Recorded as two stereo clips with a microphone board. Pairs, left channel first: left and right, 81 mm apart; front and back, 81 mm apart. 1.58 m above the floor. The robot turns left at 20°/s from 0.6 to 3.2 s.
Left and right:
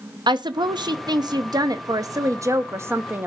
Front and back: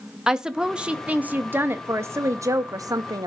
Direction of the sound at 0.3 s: 100° right.